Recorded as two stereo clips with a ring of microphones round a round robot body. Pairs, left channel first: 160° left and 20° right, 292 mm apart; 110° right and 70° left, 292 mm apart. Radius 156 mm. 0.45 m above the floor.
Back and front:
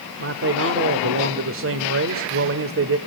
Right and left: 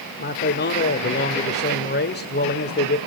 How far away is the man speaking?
About 1.5 m.